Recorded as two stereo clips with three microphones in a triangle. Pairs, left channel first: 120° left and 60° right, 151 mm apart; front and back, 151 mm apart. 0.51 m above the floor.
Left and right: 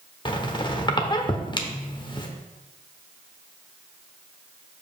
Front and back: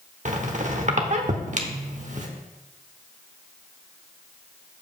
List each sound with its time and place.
0.2 s a squeak: 170° left, 0.8 m